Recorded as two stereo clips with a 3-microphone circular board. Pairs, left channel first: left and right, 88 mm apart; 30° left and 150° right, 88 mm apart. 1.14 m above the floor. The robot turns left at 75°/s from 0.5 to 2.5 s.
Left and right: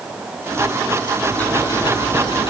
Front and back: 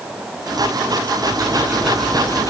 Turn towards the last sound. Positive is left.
turn(degrees=80)